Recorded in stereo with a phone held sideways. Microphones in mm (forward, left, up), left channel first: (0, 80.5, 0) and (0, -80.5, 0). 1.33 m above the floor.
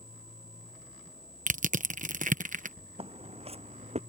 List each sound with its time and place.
1.5 s crushing: 55° right (ahead or behind)
3.0 s footsteps: 35° right (ahead or behind); by 4.0 s 40° right (ahead or behind)